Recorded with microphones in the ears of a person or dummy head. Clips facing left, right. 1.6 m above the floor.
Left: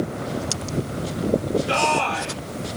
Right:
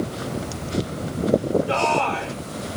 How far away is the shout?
About 4 m.